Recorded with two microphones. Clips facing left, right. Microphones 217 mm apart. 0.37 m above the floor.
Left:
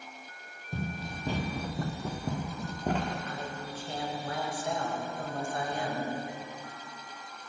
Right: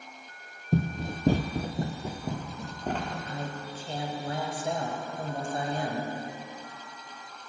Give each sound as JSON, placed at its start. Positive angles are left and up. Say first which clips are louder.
{"t": 0.7, "sound": "running footsteps", "louder": "right 8 dB", "side_deg": -65, "distance_m": 0.8}
{"t": 3.3, "sound": "a woman speaking", "louder": "right 2 dB", "side_deg": -30, "distance_m": 1.5}